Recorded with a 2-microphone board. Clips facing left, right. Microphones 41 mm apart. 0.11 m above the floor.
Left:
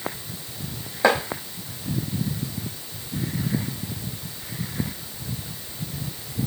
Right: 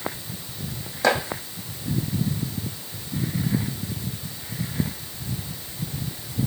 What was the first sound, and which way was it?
Chopping, 15° left (ahead or behind).